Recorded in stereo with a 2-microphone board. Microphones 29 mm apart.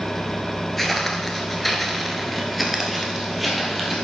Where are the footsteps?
5° left (ahead or behind), 1.5 m; by 3.9 s 5° right (ahead or behind), 2.5 m.